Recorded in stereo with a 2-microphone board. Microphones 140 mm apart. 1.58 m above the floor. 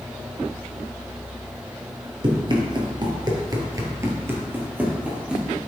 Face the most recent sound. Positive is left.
turn(degrees=-5)  # may be behind; listen again after turning